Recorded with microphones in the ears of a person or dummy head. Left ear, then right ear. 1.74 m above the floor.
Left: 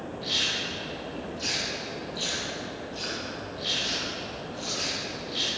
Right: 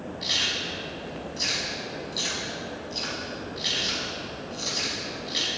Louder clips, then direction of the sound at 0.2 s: Right 1 dB; 70° right (ahead or behind).